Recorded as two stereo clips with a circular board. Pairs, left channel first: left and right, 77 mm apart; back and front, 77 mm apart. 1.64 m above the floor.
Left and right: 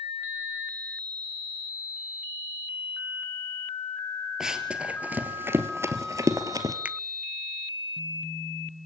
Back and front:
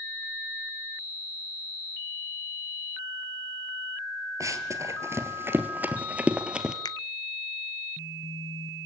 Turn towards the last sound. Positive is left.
turn(degrees=-160)